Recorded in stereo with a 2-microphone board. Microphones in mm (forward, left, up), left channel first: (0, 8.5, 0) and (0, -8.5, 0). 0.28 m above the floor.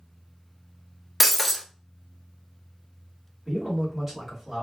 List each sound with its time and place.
1.2 s breaking glass: centre (ahead or behind), 0.5 m
3.5 s a man speaking: 10° right (ahead or behind), 1.7 m